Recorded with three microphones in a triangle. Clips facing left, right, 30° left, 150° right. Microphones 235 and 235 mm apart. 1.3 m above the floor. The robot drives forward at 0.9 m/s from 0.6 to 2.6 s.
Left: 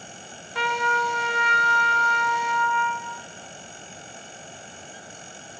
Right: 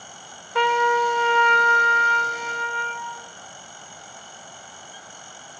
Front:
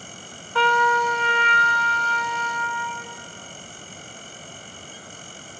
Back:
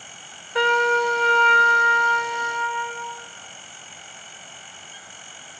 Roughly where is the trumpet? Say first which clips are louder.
Right 7 dB, back 2 dB; right.